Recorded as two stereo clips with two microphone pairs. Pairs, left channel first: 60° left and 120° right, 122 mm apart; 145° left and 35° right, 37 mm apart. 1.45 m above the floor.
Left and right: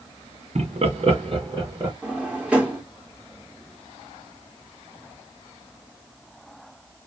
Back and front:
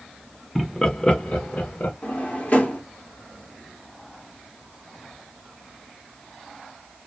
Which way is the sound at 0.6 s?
120° right.